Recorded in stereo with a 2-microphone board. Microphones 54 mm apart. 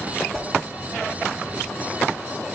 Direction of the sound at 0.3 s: 5° left (ahead or behind).